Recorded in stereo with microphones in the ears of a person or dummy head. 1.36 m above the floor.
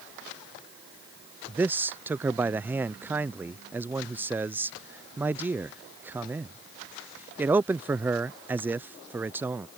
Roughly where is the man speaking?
Centre.